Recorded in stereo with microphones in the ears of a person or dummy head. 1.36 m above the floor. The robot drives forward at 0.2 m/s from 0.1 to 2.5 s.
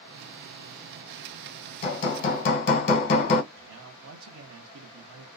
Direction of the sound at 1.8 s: 35° left (ahead or behind).